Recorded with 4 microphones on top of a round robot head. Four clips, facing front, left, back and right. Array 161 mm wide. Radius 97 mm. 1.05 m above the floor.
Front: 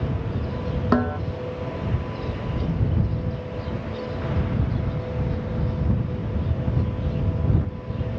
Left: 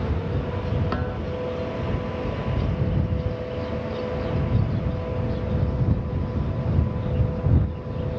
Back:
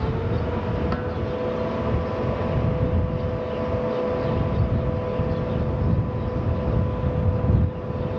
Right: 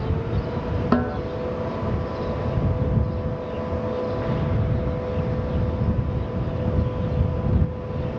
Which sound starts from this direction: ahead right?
A snare drum, at 0.9 s.